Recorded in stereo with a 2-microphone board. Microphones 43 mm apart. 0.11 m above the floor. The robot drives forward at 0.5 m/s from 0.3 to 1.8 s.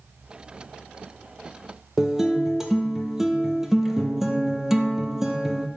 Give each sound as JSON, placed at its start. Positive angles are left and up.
{"t": 2.0, "sound": "a guitar", "side_deg": -10, "distance_m": 0.6}